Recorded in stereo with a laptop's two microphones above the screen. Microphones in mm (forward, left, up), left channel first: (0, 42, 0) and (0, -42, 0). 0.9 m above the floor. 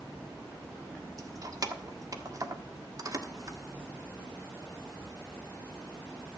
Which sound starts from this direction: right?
Keys jangling, at 1.2 s.